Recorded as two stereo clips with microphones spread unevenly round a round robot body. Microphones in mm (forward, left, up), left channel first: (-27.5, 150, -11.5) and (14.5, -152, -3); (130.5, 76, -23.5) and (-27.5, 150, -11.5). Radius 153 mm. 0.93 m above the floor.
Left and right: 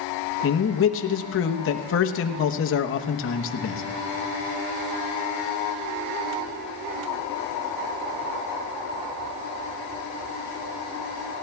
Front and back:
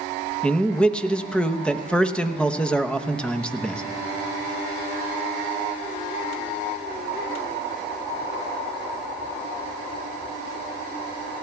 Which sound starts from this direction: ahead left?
A man speaking, at 0.4 s.